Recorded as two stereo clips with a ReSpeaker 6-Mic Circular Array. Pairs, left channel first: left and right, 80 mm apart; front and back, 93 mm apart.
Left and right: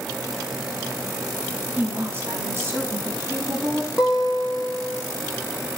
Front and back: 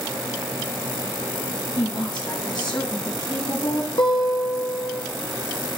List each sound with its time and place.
1.8 s a woman speaking: 30° right, 3 m; by 3.9 s 45° right, 4 m
4.0 s a guitar: 15° right, 2.5 m